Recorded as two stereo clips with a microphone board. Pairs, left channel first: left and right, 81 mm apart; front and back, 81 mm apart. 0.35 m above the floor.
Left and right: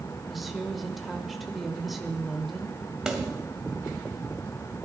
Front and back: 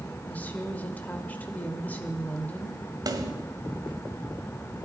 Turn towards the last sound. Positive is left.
turn(degrees=-170)